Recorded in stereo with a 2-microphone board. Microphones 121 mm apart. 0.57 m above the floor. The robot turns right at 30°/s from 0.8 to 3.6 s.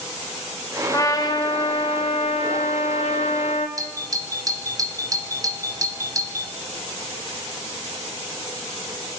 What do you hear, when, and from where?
0.9 s a trumpet: 30° left, 2 m; by 3.7 s 110° left, 2 m
3.8 s a doorbell: 30° right (ahead or behind), 2.5 m